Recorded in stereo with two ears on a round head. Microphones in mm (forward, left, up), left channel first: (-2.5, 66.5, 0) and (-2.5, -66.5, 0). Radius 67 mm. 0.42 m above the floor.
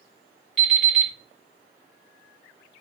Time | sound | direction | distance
0.6 | an alarm clock | 5° left (ahead or behind) | 2 m